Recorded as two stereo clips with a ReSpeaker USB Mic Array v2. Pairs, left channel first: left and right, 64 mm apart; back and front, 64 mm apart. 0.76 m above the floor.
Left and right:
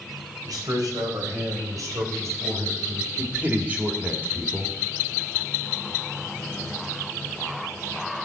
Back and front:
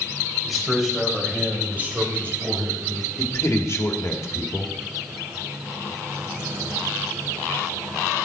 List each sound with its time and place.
0.5 s a man speaking: 90° right, 3.5 m; by 3.1 s 40° right, 3.5 m
3.2 s a man speaking: 150° right, 1.9 m